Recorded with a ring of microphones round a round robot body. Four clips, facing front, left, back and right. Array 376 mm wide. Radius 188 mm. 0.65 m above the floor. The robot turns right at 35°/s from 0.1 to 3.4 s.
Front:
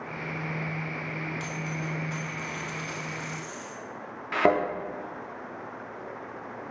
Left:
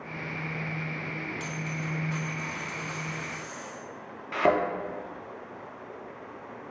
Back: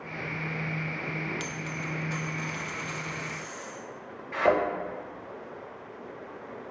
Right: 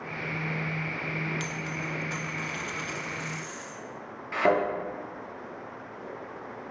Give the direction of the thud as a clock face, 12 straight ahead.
12 o'clock.